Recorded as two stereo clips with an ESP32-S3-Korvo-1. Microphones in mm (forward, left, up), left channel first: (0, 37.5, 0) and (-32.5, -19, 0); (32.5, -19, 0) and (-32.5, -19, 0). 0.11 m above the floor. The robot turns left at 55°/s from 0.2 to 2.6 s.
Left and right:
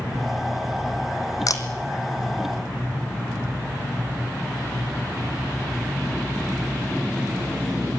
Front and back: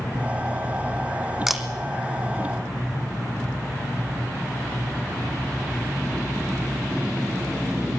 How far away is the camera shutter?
About 2 m.